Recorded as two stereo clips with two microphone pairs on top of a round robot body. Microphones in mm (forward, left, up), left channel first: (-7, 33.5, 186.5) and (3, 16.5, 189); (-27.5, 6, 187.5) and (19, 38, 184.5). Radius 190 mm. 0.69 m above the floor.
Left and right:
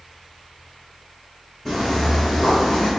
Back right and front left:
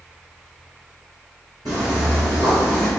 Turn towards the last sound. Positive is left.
turn(degrees=150)